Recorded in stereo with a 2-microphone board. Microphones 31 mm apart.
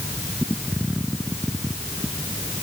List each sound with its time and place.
Only background noise.